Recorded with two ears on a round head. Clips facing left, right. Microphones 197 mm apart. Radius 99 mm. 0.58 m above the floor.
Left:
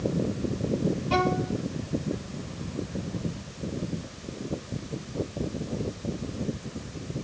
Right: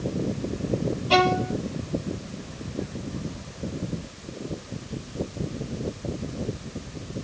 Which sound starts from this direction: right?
A violin, at 1.1 s.